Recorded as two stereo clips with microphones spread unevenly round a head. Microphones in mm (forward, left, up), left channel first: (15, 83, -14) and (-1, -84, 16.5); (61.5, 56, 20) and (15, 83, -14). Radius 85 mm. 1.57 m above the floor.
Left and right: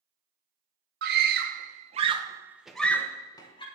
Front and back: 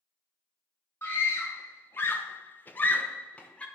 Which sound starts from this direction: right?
A scream, at 1.0 s.